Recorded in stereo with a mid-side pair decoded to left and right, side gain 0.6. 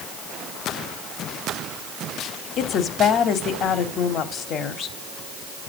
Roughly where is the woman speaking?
Ahead left.